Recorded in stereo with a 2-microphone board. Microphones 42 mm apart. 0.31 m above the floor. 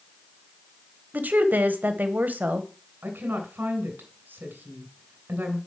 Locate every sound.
1.1 s a woman speaking: 45° right (ahead or behind), 1.2 m
3.0 s a woman speaking: 55° right (ahead or behind), 3 m